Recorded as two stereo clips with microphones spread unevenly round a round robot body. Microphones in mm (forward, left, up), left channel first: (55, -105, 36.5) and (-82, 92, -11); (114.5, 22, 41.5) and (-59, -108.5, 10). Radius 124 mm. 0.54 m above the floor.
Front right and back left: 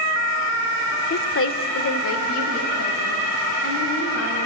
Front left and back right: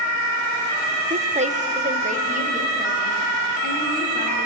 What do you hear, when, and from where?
1.1 s a woman speaking: 95° right, 1.2 m; by 4.5 s 90° right, 6 m